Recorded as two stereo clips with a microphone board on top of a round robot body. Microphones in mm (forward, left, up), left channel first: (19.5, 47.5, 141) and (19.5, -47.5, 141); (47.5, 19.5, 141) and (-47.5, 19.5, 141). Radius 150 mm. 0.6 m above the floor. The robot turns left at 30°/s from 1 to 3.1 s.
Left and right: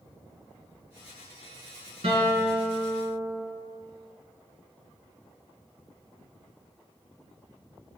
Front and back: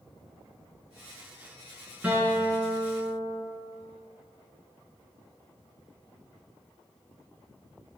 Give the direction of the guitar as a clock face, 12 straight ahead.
3 o'clock.